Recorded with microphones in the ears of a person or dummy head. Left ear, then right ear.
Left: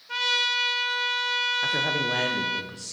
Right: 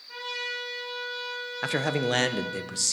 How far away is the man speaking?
About 0.7 m.